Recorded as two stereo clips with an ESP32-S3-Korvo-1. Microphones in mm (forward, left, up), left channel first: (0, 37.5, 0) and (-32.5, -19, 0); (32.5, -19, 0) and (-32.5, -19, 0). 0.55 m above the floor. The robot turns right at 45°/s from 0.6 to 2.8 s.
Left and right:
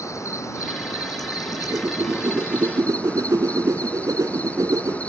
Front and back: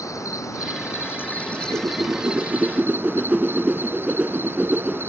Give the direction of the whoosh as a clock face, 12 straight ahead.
6 o'clock.